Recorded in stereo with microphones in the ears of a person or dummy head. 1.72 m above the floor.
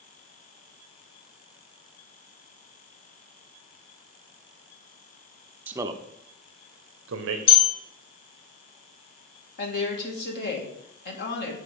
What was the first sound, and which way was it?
A man speaking, 5° right (ahead or behind).